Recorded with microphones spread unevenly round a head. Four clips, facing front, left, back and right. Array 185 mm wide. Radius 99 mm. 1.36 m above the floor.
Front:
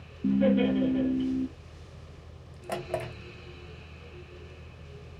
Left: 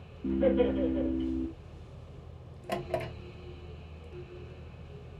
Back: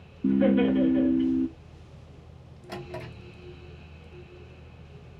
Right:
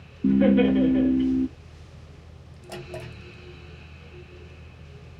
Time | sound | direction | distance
0.2 | laughter | 100° right | 2 m
2.7 | a drawer | 30° left | 1.8 m